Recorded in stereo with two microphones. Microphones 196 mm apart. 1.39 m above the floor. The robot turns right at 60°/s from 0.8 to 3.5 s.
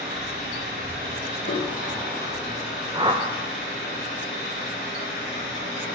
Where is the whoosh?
20° right (ahead or behind), 0.6 m; by 3.2 s 35° right (ahead or behind), 0.6 m.